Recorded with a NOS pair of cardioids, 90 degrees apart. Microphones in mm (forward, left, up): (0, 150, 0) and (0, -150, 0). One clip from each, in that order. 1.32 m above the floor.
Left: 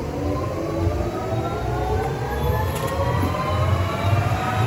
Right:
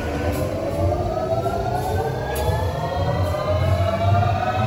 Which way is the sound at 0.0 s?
50° right.